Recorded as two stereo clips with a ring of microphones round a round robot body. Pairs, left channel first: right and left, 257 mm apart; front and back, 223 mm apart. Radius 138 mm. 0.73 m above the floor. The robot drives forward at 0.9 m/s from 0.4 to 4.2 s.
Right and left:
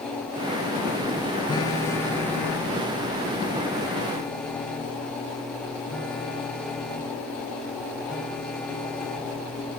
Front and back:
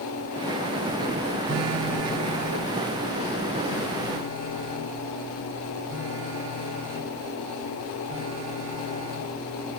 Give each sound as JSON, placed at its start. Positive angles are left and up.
{"t": 1.5, "sound": "a phone buzzing", "azimuth_deg": -165, "distance_m": 0.6}